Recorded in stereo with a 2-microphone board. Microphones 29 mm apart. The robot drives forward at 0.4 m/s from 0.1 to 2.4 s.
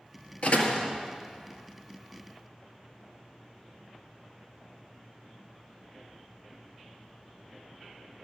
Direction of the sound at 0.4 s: 55° left (ahead or behind).